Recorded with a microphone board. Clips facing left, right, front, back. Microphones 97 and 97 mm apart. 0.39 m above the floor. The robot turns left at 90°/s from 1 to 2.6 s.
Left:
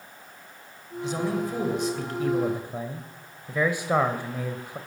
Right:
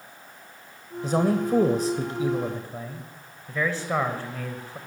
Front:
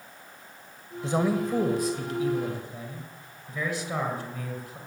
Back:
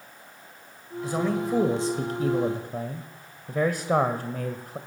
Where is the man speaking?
55° right, 1.7 m; by 4.8 s 160° left, 1.7 m.